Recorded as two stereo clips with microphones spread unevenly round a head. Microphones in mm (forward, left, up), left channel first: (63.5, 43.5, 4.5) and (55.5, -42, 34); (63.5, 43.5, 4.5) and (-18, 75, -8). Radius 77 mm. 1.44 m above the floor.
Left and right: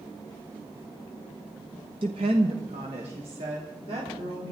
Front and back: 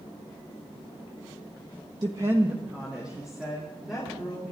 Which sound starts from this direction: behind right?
A woman speaking, at 2.0 s.